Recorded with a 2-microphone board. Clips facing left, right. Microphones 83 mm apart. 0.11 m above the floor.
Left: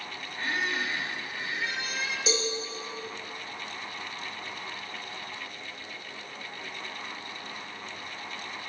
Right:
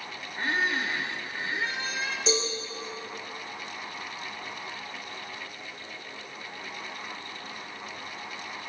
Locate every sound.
0.4 s a squeak: 35° right (ahead or behind), 0.8 m
2.3 s a cowbell: 5° left (ahead or behind), 3 m